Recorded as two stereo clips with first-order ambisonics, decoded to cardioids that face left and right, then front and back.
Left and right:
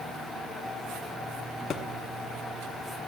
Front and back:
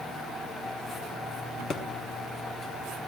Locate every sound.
1.7 s a thud: 55° left, 1.1 m